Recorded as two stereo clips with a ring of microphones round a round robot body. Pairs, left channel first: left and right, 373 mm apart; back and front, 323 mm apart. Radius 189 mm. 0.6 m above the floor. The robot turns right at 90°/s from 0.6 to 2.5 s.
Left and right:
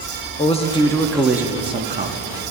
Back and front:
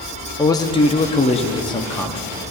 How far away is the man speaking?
About 0.9 m.